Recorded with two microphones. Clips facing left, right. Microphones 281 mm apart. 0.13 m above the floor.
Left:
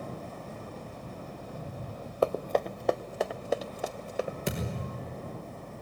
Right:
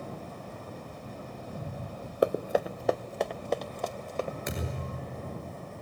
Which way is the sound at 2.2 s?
15° right (ahead or behind).